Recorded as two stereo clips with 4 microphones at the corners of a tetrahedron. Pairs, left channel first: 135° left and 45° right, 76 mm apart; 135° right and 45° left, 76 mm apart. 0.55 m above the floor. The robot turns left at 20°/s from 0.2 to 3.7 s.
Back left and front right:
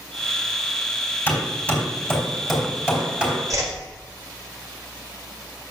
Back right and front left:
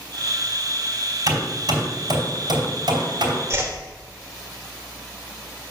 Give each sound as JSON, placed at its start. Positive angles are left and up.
{"t": 1.3, "sound": "hammering", "azimuth_deg": 70, "distance_m": 3.0}
{"t": 3.5, "sound": "a whoosh", "azimuth_deg": -10, "distance_m": 1.5}